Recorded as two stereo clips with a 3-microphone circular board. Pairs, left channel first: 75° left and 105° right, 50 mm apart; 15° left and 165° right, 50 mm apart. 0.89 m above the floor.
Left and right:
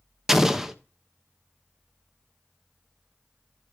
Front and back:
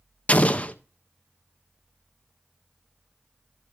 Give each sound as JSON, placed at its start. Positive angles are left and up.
{"t": 0.3, "sound": "an explosion", "azimuth_deg": -25, "distance_m": 0.7}